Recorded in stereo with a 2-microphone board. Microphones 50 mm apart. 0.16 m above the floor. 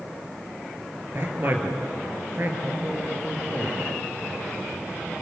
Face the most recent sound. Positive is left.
turn(degrees=-40)  # may be behind; listen again after turning